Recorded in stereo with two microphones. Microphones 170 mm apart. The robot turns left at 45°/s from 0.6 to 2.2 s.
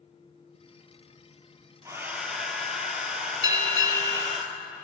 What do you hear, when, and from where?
1.9 s a hair dryer: 20° right (ahead or behind), 0.7 m; by 4.4 s 5° right (ahead or behind), 0.7 m
3.4 s a bell: 25° right (ahead or behind), 0.8 m